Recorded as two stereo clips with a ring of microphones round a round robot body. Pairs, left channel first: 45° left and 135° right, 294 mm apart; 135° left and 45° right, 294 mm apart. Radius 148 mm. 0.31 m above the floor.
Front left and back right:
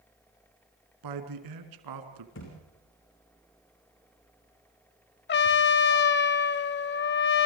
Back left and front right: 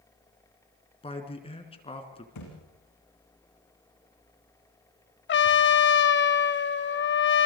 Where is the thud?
100° left, 7.5 m.